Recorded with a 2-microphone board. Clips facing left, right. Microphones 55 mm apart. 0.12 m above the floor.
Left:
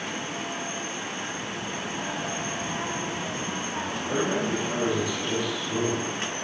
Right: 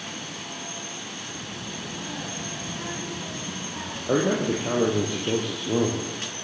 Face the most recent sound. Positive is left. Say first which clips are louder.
# right 4 dB
turn(degrees=-40)  # may be behind; listen again after turning